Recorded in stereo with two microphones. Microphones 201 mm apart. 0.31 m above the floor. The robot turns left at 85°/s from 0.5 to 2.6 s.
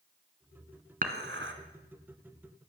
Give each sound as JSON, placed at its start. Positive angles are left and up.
{"t": 1.0, "sound": "dishes clattering", "side_deg": -45, "distance_m": 1.8}